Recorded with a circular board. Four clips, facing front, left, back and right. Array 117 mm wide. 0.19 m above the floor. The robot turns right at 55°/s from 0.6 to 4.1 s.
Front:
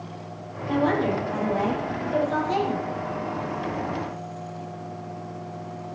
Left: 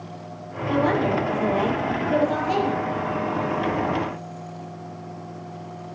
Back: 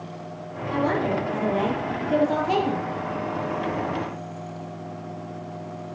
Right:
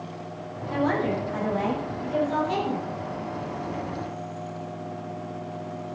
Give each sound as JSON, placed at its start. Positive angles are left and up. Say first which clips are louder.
{"t": 0.7, "sound": "a woman speaking", "louder": "left 4 dB, front 1 dB", "azimuth_deg": 65, "distance_m": 5.0}